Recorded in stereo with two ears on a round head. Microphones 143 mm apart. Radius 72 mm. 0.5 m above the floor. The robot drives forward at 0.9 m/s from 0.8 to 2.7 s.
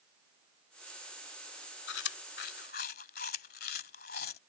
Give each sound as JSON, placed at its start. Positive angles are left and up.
{"t": 1.9, "sound": "chewing", "side_deg": 80}